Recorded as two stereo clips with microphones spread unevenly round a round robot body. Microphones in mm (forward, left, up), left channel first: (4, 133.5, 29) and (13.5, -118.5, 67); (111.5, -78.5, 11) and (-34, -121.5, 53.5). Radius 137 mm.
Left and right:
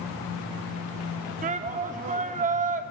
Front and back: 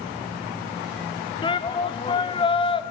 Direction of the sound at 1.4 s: 25° right.